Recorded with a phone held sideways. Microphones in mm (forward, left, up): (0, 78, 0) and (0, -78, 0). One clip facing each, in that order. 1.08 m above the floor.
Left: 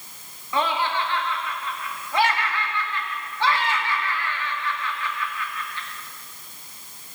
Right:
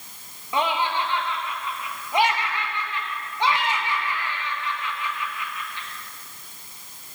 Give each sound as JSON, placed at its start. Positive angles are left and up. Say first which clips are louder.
{"t": 0.5, "sound": "laughter", "louder": "even", "side_deg": -20, "distance_m": 1.4}